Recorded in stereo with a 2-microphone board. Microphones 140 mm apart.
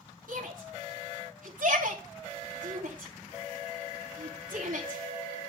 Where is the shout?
75° right (ahead or behind), 3.5 m.